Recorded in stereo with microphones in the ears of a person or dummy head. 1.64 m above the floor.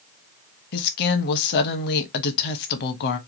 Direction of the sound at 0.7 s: 60° left (ahead or behind).